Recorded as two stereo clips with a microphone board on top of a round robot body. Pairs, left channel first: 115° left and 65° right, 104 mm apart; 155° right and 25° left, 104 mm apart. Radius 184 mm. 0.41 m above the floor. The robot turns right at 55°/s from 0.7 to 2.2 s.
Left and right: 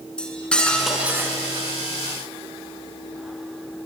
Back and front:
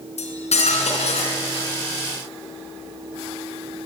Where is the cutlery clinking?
165° right, 4 m; by 1.7 s 110° right, 4 m.